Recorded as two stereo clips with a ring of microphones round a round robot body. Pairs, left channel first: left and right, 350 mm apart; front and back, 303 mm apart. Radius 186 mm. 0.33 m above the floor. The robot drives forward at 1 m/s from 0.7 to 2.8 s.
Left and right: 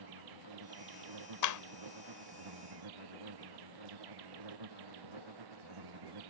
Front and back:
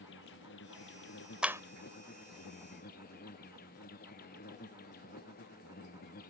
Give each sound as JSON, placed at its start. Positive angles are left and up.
{"t": 0.0, "sound": "an insect", "azimuth_deg": -60}
{"t": 1.4, "sound": "a clap", "azimuth_deg": 95}